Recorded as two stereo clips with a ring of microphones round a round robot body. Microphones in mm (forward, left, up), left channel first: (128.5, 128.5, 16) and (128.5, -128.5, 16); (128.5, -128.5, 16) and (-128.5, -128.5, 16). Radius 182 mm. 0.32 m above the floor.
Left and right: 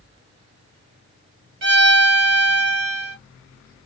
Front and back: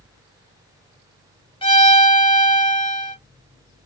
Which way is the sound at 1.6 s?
65° right.